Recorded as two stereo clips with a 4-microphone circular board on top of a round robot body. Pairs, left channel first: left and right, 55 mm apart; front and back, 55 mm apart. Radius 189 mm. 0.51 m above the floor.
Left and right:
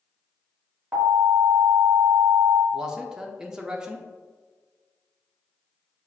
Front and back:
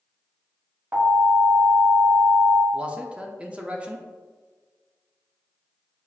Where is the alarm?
145° right, 2.0 m.